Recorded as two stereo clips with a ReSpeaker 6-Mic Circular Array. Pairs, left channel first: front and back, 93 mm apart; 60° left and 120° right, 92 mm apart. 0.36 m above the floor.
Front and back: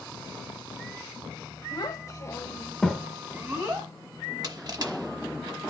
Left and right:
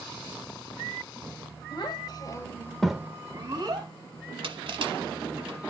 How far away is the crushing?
About 0.9 m.